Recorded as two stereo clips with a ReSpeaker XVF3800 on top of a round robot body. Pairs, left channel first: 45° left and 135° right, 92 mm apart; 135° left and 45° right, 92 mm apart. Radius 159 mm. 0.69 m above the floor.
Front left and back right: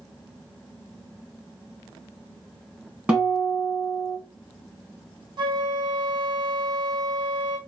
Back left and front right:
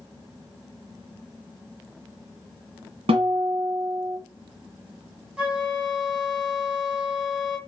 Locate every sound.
3.1 s a guitar: 60° right, 1.8 m
5.4 s a flute: 120° right, 1.6 m